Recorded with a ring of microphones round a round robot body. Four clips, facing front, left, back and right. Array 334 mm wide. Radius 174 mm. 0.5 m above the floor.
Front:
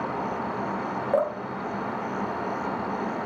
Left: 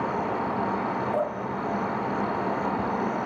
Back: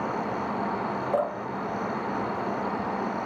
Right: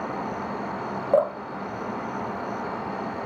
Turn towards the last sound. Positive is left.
turn(degrees=-70)